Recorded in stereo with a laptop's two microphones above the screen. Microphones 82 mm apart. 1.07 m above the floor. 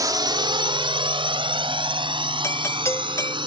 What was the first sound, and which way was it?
A drone, 45° right (ahead or behind).